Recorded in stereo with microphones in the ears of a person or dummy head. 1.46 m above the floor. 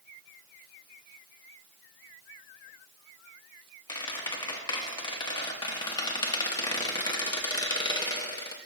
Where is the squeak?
20° left (ahead or behind), 1.2 m.